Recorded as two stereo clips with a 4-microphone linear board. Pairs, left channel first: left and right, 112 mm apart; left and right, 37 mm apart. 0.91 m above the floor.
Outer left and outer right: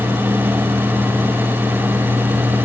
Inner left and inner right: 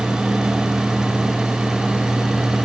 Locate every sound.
Only background noise.